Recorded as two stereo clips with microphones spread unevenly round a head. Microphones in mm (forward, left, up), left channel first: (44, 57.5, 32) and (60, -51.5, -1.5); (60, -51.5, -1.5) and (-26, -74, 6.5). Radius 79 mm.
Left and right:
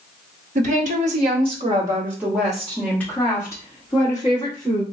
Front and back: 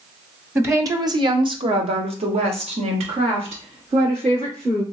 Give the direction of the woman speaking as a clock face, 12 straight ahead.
3 o'clock.